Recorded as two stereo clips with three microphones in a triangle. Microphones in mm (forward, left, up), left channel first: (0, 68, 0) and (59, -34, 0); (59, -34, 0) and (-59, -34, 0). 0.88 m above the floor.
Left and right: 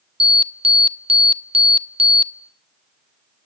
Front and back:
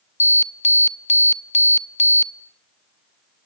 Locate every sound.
0.2 s an alarm: 20° right, 0.8 m